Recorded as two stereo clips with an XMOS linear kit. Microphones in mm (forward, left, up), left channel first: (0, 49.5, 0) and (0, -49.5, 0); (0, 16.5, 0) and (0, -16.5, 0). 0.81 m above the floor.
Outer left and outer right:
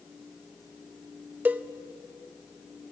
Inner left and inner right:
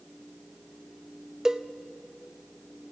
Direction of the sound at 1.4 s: 20° right (ahead or behind).